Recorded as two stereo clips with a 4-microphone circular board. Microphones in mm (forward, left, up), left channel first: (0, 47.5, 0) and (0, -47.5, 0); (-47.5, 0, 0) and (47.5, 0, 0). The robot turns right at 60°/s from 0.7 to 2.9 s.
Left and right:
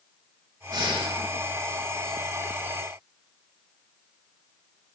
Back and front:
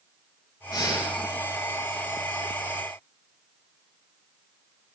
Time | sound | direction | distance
0.7 | breathing | 140° right | 7 m